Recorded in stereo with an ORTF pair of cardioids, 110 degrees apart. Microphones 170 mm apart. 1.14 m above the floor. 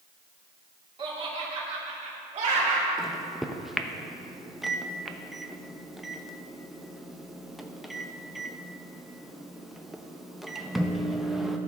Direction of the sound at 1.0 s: 30° right.